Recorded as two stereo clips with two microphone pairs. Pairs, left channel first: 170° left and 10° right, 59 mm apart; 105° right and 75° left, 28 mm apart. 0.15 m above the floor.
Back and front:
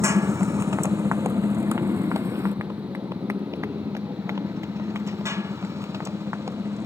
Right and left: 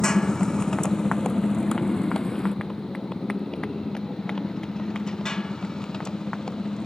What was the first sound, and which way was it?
A motorcycle, 40° right.